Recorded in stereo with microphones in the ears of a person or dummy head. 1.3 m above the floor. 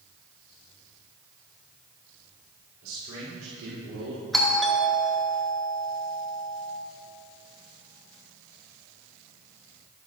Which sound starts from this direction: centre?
A doorbell, at 4.3 s.